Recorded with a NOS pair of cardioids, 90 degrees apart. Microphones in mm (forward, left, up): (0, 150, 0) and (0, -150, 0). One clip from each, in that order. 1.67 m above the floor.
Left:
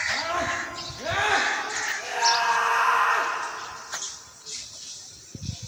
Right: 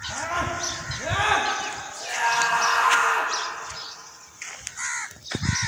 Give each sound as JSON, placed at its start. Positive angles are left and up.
{"t": 0.1, "sound": "a scream", "azimuth_deg": 5, "distance_m": 2.5}